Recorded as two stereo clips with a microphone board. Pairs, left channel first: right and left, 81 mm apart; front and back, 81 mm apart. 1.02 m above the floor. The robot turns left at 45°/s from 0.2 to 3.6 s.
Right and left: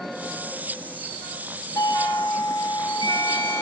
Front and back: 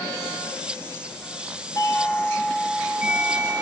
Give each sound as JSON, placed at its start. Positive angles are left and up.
{"t": 1.8, "sound": "a doorbell", "azimuth_deg": -45, "distance_m": 9.0}